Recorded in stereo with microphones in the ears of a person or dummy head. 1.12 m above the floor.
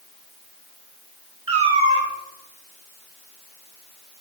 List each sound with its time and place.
1.5 s a cat meowing: 35° right (ahead or behind), 0.6 m